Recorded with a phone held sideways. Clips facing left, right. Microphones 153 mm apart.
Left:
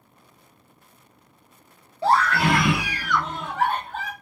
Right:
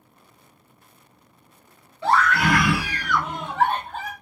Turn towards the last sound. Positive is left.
turn(degrees=-35)  # may be behind; listen again after turning